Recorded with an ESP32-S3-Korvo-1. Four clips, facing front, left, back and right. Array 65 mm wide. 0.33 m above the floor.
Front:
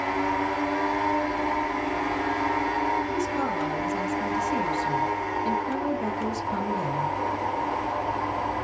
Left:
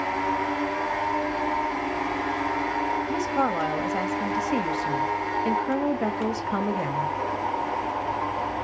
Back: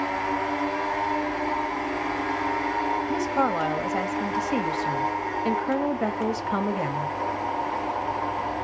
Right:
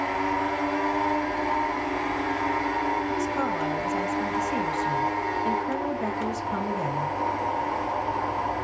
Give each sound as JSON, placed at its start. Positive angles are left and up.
{"t": 3.1, "sound": "a woman speaking", "azimuth_deg": 150, "distance_m": 1.5}